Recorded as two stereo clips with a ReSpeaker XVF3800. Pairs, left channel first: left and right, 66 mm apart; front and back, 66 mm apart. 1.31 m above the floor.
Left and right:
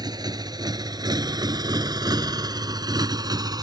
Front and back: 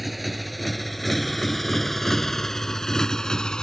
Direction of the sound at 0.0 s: 90° right.